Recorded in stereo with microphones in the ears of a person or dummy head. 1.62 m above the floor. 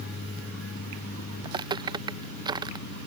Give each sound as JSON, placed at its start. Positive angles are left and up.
{"t": 1.4, "sound": "footsteps", "side_deg": -20}